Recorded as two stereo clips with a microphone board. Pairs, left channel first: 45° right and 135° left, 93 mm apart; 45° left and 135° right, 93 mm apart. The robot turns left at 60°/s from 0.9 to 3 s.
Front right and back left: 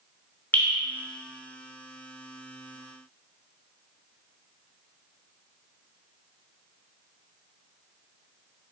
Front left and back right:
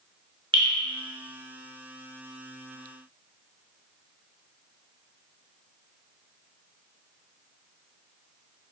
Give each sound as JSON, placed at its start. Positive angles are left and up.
{"t": 0.5, "sound": "dripping", "azimuth_deg": -115, "distance_m": 1.1}